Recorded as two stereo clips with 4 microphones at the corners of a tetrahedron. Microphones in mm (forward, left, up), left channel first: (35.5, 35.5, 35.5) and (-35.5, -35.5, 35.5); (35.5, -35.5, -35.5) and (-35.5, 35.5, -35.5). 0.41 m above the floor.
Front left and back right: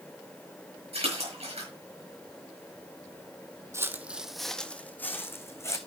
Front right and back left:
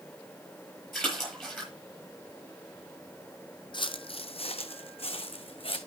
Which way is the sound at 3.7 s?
75° right.